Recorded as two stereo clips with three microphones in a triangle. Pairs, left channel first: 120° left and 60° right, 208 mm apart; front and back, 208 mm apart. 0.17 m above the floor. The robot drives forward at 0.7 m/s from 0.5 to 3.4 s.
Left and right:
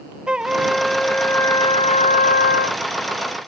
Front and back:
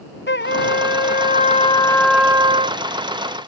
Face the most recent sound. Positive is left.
turn(degrees=150)